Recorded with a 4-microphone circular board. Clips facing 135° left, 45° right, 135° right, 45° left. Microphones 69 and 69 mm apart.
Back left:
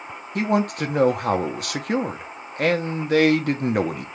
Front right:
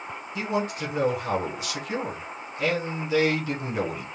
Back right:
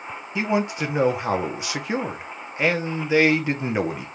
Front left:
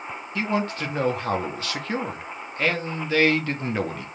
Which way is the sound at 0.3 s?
155° left.